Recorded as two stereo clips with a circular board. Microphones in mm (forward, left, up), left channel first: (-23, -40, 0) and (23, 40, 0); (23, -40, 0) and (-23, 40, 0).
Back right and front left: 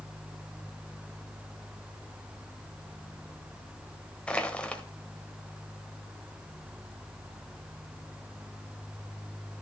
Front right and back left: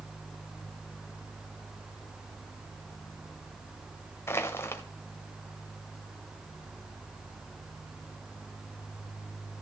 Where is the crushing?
55° right, 1.4 m.